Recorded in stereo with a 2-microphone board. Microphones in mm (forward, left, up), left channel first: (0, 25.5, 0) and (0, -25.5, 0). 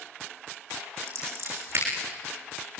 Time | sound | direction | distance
1.1 | scissors | 50° right (ahead or behind) | 8 m